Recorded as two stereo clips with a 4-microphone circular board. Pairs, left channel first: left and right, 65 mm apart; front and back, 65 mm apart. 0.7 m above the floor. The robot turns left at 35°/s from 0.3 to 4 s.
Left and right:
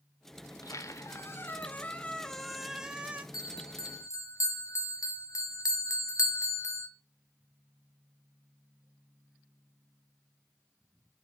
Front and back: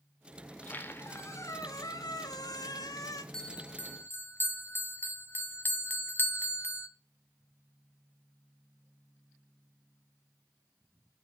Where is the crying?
I don't hear crying.